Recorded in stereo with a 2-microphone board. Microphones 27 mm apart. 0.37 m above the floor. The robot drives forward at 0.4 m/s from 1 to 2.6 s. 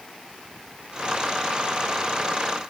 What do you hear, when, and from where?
Only background noise.